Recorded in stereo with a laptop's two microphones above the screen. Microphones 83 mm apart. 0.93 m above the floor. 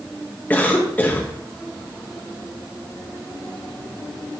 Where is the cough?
20° left (ahead or behind), 1.1 m.